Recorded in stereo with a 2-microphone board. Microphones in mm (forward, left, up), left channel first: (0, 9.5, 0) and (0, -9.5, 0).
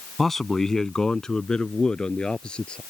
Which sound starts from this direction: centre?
A man speaking, at 0.2 s.